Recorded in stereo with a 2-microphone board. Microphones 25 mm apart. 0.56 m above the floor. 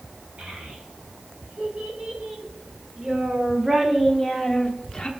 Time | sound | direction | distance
0.4 | a child speaking | 50° right (ahead or behind) | 3 m